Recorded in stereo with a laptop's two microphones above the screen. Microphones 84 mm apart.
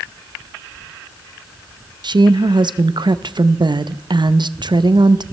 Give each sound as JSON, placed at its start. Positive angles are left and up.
{"t": 2.0, "sound": "a woman speaking", "side_deg": -60, "distance_m": 0.6}